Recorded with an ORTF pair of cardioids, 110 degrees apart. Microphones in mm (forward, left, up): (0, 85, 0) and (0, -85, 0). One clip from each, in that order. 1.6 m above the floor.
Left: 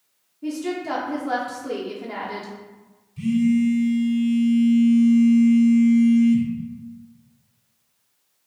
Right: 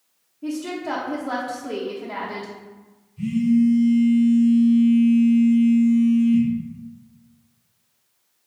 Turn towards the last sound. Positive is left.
turn(degrees=65)